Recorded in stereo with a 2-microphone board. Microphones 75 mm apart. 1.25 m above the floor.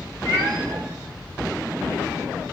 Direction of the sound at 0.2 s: 65° right (ahead or behind).